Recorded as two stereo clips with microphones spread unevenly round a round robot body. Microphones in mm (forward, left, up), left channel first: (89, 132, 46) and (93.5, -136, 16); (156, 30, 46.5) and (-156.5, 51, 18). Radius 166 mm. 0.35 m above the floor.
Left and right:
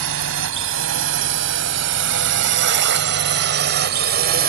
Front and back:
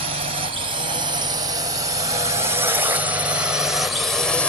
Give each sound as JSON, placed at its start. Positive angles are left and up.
{"t": 0.0, "sound": "a drone", "azimuth_deg": -115}